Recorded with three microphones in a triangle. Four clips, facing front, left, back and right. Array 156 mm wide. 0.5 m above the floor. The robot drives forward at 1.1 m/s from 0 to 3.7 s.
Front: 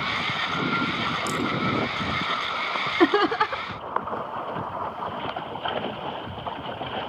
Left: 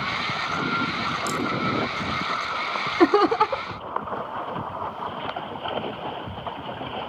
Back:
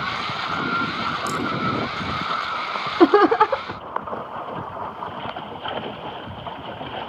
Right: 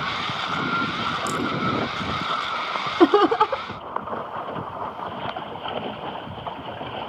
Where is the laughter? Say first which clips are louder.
Right 2 dB, back 7 dB; 160° right; by 3.8 s 175° right.